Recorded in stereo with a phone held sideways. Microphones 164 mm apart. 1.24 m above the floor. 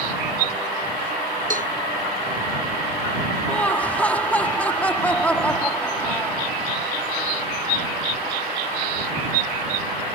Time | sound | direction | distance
1.5 | a cowbell | 55° right (ahead or behind) | ?
3.5 | laughter | 10° left (ahead or behind) | ?